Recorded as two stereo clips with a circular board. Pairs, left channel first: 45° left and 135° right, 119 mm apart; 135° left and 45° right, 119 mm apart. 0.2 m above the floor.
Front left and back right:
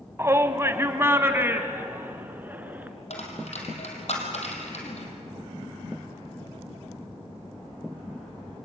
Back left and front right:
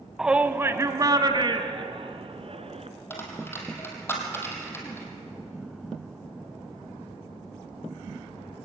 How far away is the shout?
About 1.1 m.